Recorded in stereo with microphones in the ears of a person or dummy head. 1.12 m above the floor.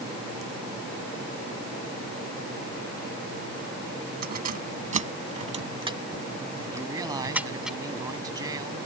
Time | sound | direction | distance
4.2 | keys jangling | 45° right (ahead or behind) | ?
6.7 | a man speaking | 25° right (ahead or behind) | ?